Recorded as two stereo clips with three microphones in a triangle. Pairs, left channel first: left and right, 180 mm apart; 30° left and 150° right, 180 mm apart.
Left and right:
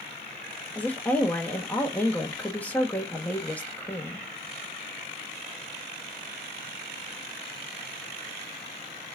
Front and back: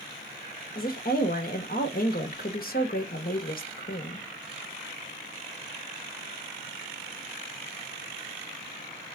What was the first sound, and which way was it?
A woman speaking, 10° left.